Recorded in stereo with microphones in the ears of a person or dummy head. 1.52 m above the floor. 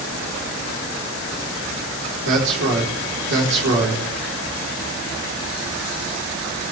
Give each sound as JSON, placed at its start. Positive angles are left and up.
{"t": 2.2, "sound": "a man speaking", "side_deg": -70, "distance_m": 4.0}